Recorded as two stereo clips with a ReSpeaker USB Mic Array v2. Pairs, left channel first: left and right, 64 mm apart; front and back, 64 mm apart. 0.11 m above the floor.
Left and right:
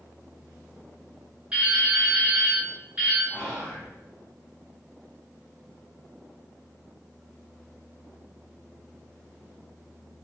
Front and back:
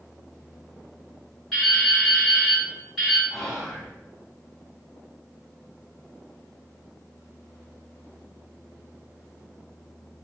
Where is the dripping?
95° right, 1.7 m.